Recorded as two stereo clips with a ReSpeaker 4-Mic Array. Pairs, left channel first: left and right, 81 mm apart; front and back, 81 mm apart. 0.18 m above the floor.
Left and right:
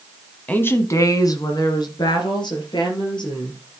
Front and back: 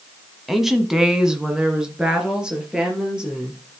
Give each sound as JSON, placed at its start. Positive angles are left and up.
{"t": 0.5, "sound": "a woman speaking", "azimuth_deg": 95, "distance_m": 1.0}